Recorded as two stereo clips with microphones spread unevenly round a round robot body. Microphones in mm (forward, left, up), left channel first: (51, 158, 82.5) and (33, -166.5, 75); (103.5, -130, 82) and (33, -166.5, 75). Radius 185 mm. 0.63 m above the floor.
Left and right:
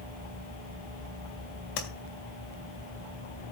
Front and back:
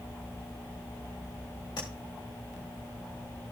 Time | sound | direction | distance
1.8 | tapping | 70° left | 2 m